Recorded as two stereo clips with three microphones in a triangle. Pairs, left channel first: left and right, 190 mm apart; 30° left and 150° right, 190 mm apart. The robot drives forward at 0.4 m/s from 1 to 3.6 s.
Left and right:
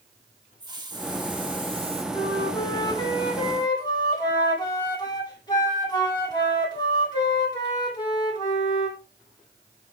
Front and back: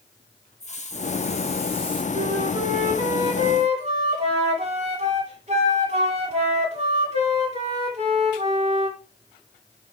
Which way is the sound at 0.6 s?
25° right.